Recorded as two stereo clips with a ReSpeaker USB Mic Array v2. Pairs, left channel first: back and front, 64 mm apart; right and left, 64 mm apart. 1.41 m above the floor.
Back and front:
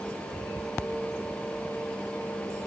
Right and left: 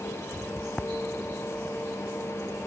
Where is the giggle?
I don't hear a giggle.